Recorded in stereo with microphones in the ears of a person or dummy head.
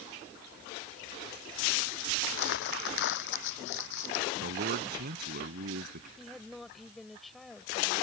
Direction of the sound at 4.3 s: 55° right (ahead or behind).